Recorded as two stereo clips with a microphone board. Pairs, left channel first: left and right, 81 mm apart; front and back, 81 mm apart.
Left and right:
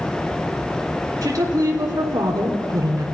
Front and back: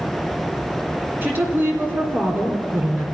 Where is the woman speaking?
120° right, 2 m.